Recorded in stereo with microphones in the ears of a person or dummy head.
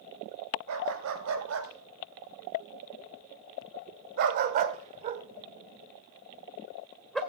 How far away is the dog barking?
About 3 m.